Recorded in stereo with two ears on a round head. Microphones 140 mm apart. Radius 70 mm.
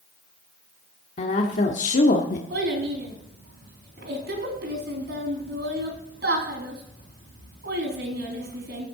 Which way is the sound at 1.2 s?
45° left (ahead or behind).